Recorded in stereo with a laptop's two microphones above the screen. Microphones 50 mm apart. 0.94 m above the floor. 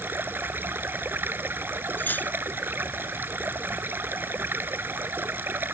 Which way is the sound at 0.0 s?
40° right (ahead or behind).